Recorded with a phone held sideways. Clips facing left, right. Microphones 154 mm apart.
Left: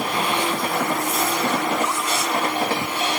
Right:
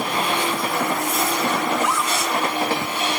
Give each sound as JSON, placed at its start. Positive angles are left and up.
{"t": 1.7, "sound": "a scream", "side_deg": -85}